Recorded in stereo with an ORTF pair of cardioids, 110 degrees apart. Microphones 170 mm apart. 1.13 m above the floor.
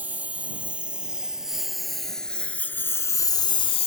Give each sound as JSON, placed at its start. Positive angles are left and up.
{"t": 0.0, "sound": "a lawn mower", "azimuth_deg": -10}